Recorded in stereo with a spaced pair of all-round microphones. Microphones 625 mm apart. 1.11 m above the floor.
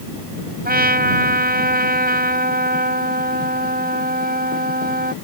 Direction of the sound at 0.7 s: 15° right (ahead or behind).